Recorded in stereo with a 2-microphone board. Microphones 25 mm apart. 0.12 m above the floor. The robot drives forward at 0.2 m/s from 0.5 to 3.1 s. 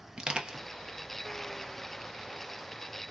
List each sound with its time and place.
0.2 s crushing: 35° right (ahead or behind), 1.2 m